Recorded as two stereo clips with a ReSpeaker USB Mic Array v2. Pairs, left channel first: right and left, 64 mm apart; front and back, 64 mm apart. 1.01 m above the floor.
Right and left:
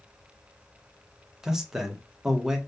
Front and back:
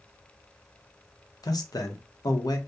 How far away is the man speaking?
About 0.6 m.